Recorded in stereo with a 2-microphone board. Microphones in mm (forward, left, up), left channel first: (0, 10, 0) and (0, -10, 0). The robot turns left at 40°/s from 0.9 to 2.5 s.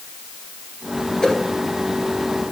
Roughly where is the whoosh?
Left.